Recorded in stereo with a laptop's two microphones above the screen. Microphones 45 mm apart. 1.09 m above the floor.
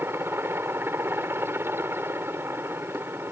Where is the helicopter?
65° right (ahead or behind).